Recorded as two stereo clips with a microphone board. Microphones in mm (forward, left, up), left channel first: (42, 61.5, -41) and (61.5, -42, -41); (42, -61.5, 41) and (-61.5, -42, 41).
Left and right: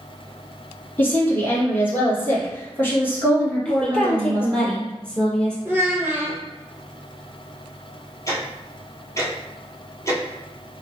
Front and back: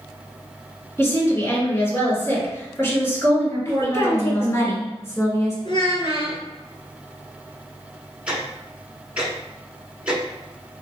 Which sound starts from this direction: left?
Ticking, at 8.3 s.